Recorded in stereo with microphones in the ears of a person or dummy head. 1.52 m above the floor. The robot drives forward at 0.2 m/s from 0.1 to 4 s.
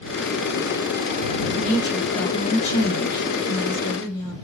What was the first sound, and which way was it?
A woman speaking, 45° left (ahead or behind).